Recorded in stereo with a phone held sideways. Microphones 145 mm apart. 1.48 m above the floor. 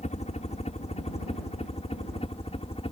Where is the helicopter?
55° left (ahead or behind); by 2.9 s 45° left (ahead or behind).